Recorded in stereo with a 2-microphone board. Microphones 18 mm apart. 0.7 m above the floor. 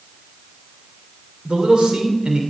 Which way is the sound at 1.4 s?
55° right (ahead or behind).